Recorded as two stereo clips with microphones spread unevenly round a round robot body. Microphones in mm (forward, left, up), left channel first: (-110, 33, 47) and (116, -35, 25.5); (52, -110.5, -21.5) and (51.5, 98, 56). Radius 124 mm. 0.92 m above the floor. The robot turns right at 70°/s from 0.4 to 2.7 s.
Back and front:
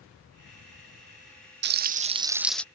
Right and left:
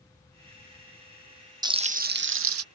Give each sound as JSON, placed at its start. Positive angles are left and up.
{"t": 1.6, "sound": "frying", "azimuth_deg": 5}